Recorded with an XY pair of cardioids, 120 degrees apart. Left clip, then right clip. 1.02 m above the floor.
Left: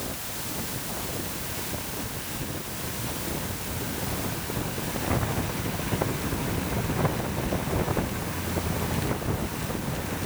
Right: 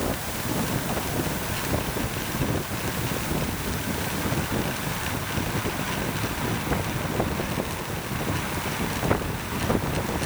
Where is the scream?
No scream in this recording.